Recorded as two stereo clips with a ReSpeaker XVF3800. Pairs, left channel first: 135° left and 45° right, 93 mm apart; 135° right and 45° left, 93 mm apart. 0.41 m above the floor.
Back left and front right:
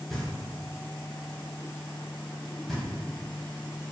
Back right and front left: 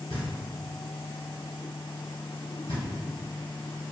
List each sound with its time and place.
0.1 s knocking: 140° right, 1.4 m